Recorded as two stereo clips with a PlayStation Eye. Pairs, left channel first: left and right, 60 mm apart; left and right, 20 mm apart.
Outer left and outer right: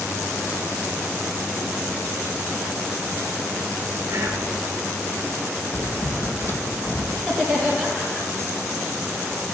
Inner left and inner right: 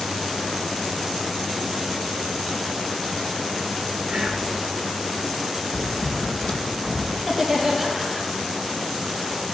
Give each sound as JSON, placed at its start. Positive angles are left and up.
{"t": 4.1, "sound": "whispering", "side_deg": -40, "distance_m": 3.0}
{"t": 5.7, "sound": "typing on a keyboard", "side_deg": 45, "distance_m": 2.0}
{"t": 7.2, "sound": "laughter", "side_deg": 5, "distance_m": 5.5}